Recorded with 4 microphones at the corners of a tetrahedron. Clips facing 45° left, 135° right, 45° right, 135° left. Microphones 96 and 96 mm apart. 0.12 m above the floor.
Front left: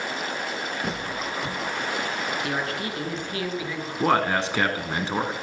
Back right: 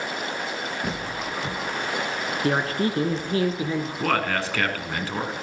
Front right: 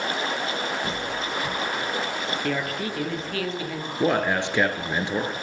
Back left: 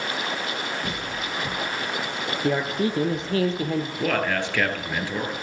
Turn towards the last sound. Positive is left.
turn(degrees=-5)